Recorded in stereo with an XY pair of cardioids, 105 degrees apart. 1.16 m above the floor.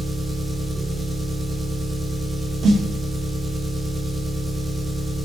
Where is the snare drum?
65° right, 0.7 m.